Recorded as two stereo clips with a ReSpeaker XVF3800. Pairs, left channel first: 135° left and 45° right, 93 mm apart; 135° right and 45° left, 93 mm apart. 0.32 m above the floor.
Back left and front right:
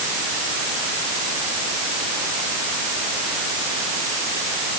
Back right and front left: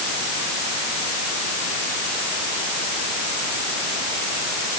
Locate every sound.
Only background noise.